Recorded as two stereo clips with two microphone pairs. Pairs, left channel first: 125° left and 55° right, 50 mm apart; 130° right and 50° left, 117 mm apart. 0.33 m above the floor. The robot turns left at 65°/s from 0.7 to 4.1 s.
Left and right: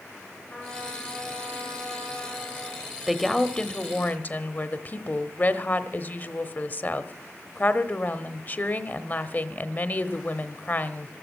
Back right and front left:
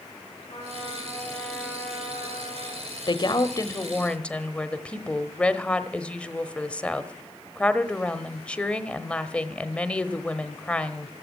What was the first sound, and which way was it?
A trumpet, 155° right.